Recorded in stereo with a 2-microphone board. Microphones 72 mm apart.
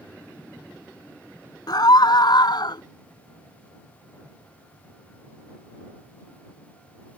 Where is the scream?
60° left (ahead or behind); by 2.8 s 75° left (ahead or behind).